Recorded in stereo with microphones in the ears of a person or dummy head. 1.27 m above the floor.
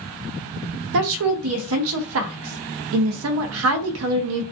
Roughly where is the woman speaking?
Right.